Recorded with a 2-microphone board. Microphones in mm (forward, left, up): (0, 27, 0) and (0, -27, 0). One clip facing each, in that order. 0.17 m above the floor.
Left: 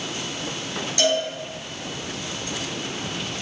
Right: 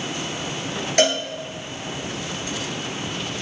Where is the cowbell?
60° right (ahead or behind), 1.5 m.